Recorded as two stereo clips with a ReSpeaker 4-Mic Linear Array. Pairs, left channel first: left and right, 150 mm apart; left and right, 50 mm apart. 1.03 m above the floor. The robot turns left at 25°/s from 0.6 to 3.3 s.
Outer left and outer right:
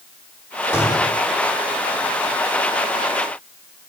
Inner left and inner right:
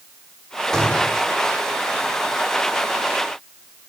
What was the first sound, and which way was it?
A gunshot, 15° left (ahead or behind).